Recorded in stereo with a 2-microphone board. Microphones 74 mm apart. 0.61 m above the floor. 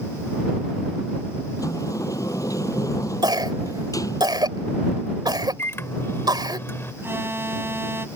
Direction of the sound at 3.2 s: 70° right (ahead or behind).